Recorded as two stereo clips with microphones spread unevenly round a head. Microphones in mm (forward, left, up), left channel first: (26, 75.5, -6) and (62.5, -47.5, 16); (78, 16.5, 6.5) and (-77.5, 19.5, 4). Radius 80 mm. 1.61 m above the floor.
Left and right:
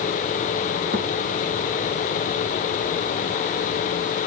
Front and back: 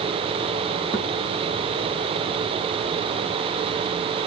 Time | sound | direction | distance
0.9 | a thud | 60° right | 5.5 m